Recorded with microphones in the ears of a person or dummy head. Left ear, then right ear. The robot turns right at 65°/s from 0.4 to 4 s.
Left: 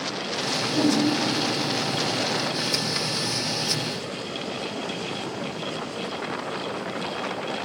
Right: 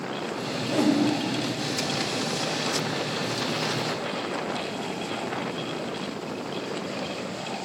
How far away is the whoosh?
About 1.1 m.